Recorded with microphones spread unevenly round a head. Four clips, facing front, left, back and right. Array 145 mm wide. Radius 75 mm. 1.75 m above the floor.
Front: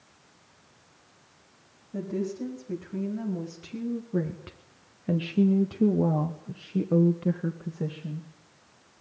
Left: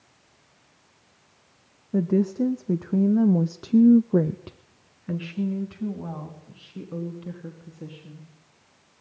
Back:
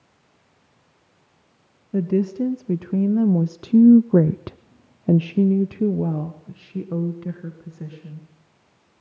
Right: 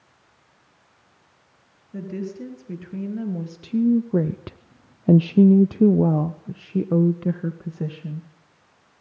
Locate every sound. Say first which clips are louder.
1.9 s a woman speaking: left 9 dB, back 10 dB; 135° left, 2 m; by 8.3 s 70° right, 3 m